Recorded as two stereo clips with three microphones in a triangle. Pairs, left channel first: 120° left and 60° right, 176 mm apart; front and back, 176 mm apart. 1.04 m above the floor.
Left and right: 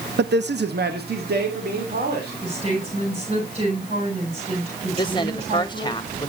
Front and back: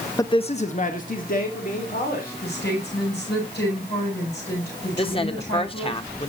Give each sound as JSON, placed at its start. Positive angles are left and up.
{"t": 0.2, "sound": "a man speaking", "azimuth_deg": -70, "distance_m": 0.5}
{"t": 2.4, "sound": "a woman speaking", "azimuth_deg": -5, "distance_m": 8.0}
{"t": 5.0, "sound": "a woman speaking", "azimuth_deg": 60, "distance_m": 1.3}